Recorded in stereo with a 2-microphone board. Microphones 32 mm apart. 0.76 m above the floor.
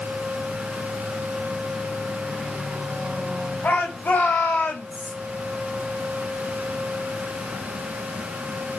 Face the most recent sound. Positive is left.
turn(degrees=60)  # may be behind; listen again after turning